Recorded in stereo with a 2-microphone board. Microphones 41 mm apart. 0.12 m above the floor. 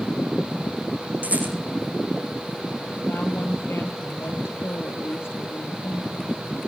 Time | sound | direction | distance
1.2 | a rattle | 40° right (ahead or behind) | 8.5 m
3.1 | a woman speaking | 70° left (ahead or behind) | 3.5 m